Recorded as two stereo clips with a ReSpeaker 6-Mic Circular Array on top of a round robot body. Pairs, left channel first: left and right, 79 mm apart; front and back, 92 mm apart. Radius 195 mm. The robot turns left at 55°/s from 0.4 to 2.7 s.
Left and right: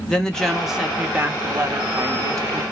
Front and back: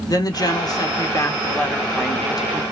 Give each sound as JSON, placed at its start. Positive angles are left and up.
{"t": 0.1, "sound": "a woman speaking", "azimuth_deg": 10, "distance_m": 1.0}